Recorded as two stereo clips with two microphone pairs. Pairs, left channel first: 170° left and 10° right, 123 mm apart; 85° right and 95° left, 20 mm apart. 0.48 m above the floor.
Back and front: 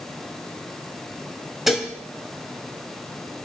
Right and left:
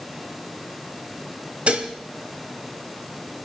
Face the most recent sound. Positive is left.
turn(degrees=80)